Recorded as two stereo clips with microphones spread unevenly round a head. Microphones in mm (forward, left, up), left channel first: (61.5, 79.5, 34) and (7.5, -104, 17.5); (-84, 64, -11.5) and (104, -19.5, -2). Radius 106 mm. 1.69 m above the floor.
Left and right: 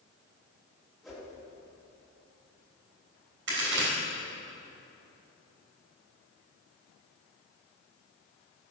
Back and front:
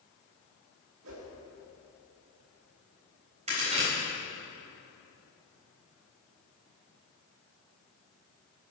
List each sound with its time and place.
1.0 s a whoosh: 15° right, 2.5 m
3.5 s a crack: 80° right, 4 m